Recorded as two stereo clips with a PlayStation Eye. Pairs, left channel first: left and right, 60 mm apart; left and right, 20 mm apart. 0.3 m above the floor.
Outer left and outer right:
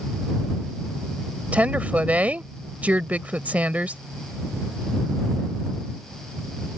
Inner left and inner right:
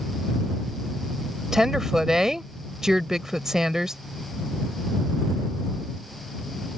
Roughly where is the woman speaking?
Right.